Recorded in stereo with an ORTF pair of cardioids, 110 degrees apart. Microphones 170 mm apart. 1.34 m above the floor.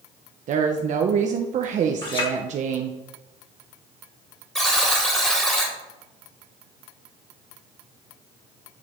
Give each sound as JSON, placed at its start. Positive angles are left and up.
{"t": 0.5, "sound": "a woman speaking", "azimuth_deg": -50, "distance_m": 0.7}
{"t": 2.0, "sound": "a clink", "azimuth_deg": 30, "distance_m": 2.5}
{"t": 4.5, "sound": "a buzzer", "azimuth_deg": 5, "distance_m": 2.0}